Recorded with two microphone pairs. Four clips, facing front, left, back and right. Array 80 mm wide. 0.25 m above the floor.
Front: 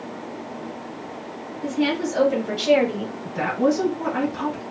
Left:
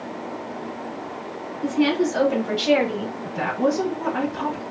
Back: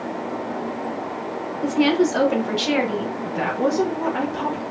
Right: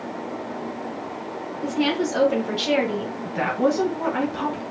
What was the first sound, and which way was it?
A woman speaking, 175° right.